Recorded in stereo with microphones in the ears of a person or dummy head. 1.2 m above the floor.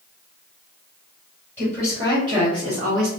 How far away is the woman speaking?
About 1.3 m.